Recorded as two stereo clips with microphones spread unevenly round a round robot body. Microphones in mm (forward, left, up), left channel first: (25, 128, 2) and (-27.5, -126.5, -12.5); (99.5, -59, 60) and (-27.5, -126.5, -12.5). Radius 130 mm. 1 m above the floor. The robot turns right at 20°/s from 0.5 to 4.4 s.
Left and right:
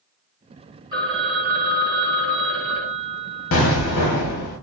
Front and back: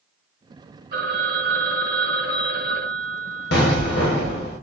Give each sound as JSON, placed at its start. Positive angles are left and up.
{"t": 0.9, "sound": "a phone ringing", "azimuth_deg": -175, "distance_m": 1.5}
{"t": 3.5, "sound": "an explosion", "azimuth_deg": 35, "distance_m": 1.0}